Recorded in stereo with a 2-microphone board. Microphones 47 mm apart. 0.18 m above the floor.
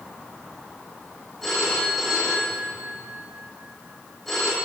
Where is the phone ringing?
5° left (ahead or behind), 7 m.